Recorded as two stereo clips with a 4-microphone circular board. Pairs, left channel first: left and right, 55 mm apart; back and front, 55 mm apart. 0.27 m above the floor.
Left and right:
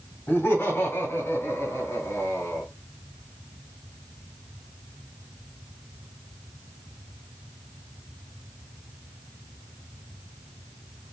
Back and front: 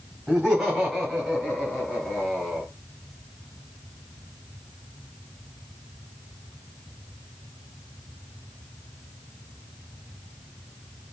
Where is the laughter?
80° left, 2 m; by 2.6 s 90° left, 3 m.